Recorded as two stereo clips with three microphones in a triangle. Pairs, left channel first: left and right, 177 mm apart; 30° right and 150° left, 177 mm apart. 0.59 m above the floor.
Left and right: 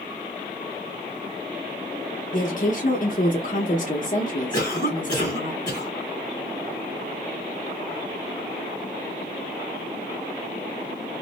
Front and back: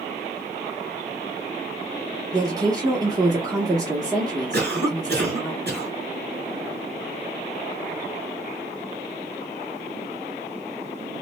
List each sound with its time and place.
2.3 s a woman speaking: 90° left, 0.7 m
4.5 s a cough: 155° left, 2.5 m